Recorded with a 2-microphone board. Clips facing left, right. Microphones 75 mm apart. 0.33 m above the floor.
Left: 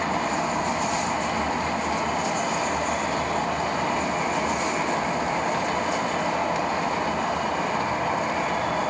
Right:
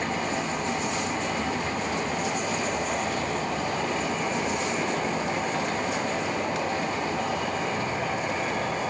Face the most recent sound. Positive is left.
turn(degrees=60)  # may be behind; listen again after turning